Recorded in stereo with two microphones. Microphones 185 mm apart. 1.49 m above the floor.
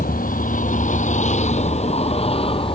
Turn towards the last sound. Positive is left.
turn(degrees=30)  # may be behind; listen again after turning